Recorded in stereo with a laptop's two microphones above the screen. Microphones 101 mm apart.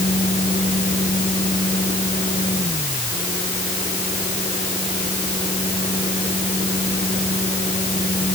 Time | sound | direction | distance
0.0 | a fan | 85° left | ?